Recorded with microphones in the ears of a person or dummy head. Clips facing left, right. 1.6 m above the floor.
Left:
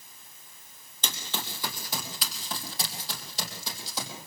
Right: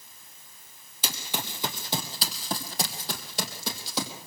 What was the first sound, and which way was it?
Running footsteps, 5° right (ahead or behind).